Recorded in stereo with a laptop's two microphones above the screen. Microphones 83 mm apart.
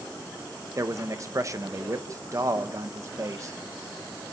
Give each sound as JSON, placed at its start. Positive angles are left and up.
{"t": 0.8, "sound": "a man speaking", "side_deg": -40, "distance_m": 1.0}